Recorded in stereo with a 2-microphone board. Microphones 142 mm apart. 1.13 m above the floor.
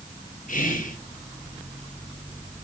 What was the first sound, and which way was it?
Whispering, 65° left (ahead or behind).